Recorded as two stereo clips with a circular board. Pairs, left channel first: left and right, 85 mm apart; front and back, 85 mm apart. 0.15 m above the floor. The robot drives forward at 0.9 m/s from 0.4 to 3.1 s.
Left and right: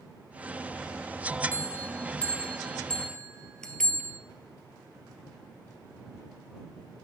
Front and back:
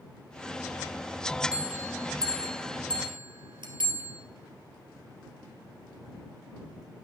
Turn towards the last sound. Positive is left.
turn(degrees=170)